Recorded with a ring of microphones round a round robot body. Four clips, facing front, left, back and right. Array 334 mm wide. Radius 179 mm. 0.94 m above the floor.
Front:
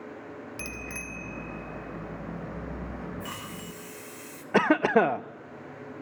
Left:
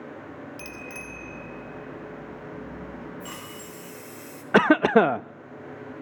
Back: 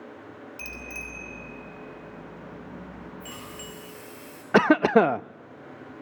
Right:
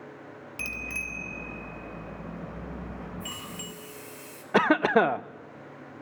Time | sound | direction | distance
0.6 | a bicycle bell | 30° right | 3.5 m
3.2 | a hiss | 20° left | 3.5 m
4.5 | a cough | 125° left | 0.6 m